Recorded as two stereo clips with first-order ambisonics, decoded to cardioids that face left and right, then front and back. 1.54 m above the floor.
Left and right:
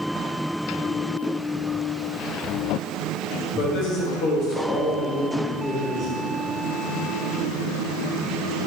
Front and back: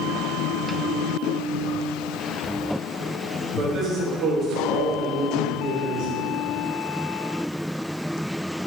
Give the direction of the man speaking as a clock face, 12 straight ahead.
8 o'clock.